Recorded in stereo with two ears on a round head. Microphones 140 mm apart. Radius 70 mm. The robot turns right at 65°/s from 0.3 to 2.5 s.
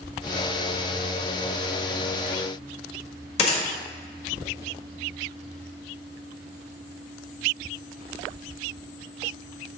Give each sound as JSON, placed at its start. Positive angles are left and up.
{"t": 3.4, "sound": "a gunshot", "side_deg": 45, "distance_m": 1.8}